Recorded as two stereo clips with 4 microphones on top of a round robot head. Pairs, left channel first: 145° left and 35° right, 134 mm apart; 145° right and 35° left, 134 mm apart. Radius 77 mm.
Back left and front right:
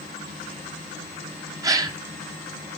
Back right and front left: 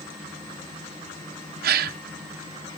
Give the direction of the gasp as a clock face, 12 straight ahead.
11 o'clock.